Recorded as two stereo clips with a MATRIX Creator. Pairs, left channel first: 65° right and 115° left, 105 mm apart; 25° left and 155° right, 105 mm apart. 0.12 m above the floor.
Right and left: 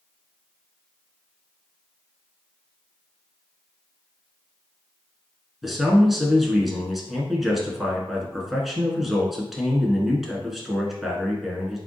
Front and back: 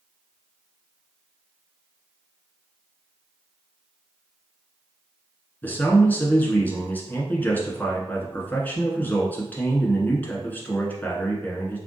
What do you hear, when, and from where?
5.6 s a man speaking: 25° left, 1.1 m